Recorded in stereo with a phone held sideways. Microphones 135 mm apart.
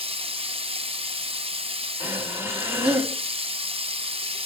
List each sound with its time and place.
0.0 s running water: 45° right (ahead or behind), 0.9 m
2.0 s breathing: 15° right (ahead or behind), 2.5 m